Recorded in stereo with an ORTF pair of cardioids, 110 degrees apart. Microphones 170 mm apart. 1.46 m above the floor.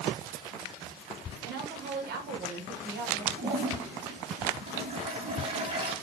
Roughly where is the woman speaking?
Right.